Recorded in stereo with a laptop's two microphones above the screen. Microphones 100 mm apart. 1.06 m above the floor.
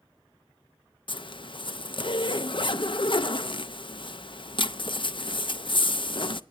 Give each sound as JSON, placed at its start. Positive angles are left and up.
{"t": 1.1, "sound": "a zipper", "side_deg": 55, "distance_m": 0.5}